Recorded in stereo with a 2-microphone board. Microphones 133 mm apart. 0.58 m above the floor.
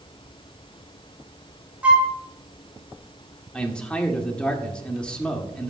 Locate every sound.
1.8 s a flute: 10° right (ahead or behind), 1.3 m
3.5 s a man speaking: 10° left (ahead or behind), 1.4 m